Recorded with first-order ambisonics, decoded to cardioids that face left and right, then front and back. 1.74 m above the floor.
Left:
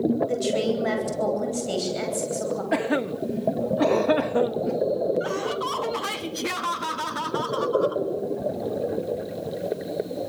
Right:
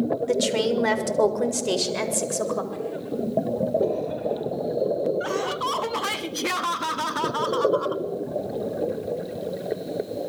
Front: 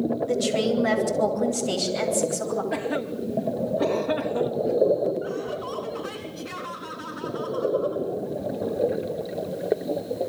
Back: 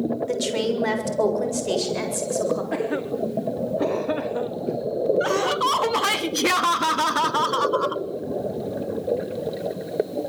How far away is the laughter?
About 0.9 m.